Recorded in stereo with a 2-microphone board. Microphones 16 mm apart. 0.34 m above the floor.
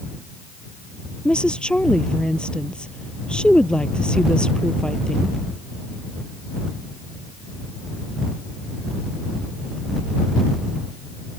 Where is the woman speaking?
80° left.